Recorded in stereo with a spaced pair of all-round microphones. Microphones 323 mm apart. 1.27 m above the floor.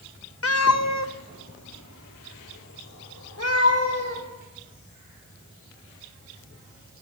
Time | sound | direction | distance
0.4 | a cat meowing | 45° left (ahead or behind) | 0.6 m